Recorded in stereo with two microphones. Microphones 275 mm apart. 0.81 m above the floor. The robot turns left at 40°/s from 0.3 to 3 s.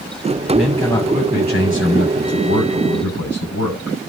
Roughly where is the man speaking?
Behind.